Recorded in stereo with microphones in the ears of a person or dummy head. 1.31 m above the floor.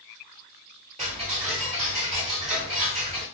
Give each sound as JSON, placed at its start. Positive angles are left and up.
{"t": 1.0, "sound": "ticking", "side_deg": -30, "distance_m": 1.3}